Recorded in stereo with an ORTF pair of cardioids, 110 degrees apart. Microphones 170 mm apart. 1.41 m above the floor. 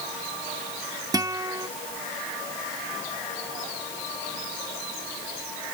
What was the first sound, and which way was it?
A guitar, 20° right.